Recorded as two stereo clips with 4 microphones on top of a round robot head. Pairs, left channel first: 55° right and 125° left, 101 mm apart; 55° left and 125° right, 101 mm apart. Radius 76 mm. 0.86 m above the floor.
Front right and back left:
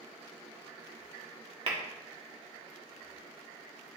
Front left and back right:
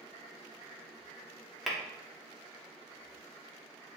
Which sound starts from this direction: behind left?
Tapping, at 1.7 s.